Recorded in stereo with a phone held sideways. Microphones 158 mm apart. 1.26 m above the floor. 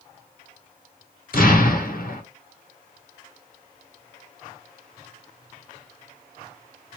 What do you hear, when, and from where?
1.3 s an explosion: 65° left (ahead or behind), 1.2 m